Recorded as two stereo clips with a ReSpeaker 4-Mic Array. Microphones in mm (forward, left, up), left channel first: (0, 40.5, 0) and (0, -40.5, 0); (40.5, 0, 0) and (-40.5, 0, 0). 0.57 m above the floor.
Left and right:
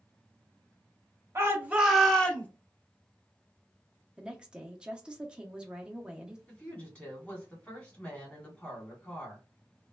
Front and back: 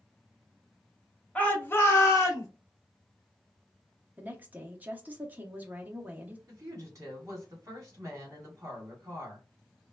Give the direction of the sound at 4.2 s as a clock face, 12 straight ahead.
5 o'clock.